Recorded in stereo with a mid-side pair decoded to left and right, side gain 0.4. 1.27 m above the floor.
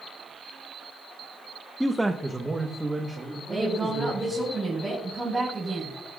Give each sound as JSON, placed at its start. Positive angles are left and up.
{"t": 1.8, "sound": "a man speaking", "azimuth_deg": -5, "distance_m": 0.6}
{"t": 3.5, "sound": "a woman speaking", "azimuth_deg": -20, "distance_m": 5.5}